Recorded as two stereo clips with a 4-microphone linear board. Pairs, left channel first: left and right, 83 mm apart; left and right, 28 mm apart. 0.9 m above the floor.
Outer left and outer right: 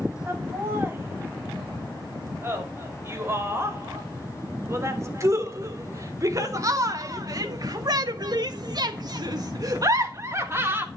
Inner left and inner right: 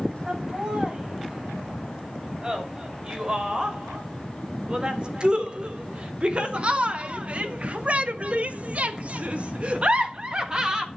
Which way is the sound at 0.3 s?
30° right (ahead or behind).